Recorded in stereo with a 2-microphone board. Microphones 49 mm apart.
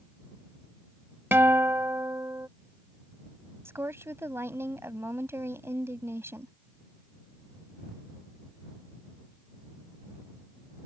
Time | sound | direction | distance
1.3 | a guitar | 50° right (ahead or behind) | ?
3.6 | a woman speaking | 60° right (ahead or behind) | ?